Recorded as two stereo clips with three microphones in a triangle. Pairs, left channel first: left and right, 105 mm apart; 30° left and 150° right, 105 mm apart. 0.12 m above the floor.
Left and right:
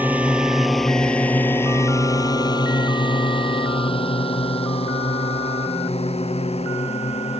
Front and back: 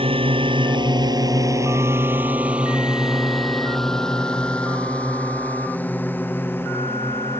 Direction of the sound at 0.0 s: 165° right.